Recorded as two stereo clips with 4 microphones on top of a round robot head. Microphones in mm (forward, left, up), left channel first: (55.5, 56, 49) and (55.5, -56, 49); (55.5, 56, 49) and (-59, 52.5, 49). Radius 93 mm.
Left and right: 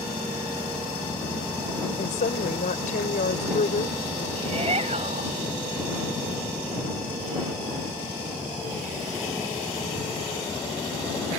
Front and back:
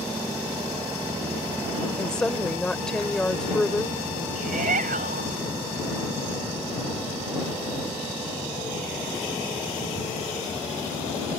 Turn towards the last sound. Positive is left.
turn(degrees=-145)